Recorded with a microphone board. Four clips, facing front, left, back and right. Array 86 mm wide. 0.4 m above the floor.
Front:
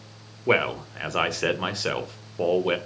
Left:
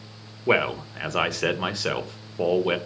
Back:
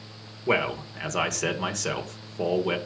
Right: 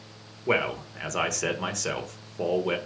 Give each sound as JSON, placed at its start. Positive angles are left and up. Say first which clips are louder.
{"t": 0.5, "sound": "a man speaking", "louder": "left 4 dB, front 2 dB", "azimuth_deg": 50, "distance_m": 0.9}